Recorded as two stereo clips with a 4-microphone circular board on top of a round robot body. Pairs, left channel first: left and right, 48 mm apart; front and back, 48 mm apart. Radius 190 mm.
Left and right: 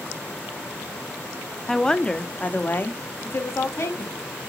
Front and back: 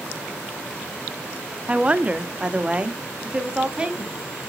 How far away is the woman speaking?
About 0.9 m.